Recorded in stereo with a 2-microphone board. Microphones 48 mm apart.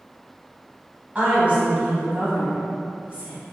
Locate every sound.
1.1 s a woman speaking: 30° right (ahead or behind), 1.1 m